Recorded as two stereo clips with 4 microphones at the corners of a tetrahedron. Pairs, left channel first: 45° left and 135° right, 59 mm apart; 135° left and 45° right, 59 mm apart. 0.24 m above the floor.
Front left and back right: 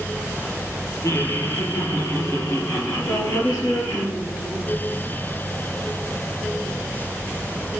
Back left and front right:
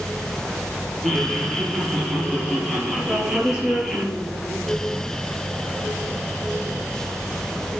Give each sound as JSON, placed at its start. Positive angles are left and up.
{"t": 1.0, "sound": "laughter", "azimuth_deg": 50, "distance_m": 6.0}
{"t": 3.1, "sound": "a woman speaking", "azimuth_deg": 30, "distance_m": 7.5}